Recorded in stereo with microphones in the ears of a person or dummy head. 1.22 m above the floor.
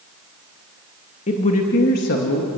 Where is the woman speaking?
30° left (ahead or behind), 2.5 m; by 2.5 s 65° left (ahead or behind), 2 m.